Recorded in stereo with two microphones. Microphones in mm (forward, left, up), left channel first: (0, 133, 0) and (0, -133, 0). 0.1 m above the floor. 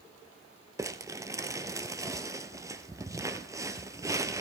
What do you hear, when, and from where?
0.8 s crumpling: 10° right (ahead or behind), 0.9 m